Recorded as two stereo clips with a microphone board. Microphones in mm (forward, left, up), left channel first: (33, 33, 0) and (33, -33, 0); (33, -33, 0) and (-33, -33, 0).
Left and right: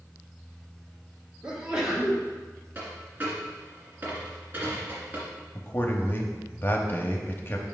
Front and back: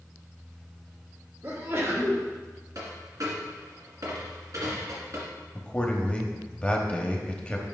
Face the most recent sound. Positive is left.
turn(degrees=60)